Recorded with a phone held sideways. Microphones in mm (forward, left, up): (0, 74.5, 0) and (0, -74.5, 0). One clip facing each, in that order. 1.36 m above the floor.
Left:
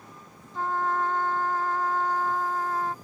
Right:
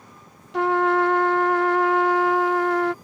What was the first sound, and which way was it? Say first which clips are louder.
A trumpet: right 8 dB; 75° right (ahead or behind).